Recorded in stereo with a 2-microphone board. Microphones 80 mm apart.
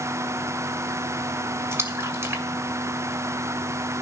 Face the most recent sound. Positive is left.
turn(degrees=-30)  # may be behind; listen again after turning